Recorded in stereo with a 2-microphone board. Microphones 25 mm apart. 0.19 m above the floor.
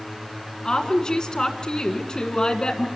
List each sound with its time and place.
0.7 s a woman speaking: 25° left (ahead or behind), 1.6 m